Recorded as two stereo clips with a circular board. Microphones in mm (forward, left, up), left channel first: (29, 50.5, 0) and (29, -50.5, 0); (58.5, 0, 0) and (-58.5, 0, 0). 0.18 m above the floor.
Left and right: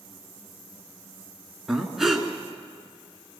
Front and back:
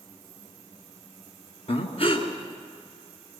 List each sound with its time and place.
1.7 s breathing: 5° right, 2 m